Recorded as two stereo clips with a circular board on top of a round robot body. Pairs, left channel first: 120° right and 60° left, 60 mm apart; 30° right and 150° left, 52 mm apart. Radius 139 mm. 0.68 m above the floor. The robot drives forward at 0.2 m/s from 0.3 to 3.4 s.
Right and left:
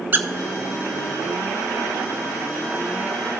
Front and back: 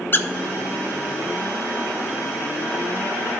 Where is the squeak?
10° left, 0.7 m.